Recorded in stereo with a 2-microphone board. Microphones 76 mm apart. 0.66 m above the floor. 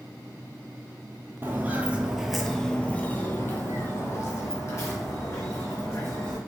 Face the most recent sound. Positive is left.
turn(degrees=40)  # may be behind; listen again after turning